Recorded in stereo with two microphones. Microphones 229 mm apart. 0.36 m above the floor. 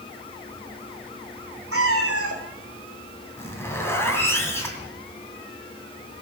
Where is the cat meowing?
85° right, 2.0 m.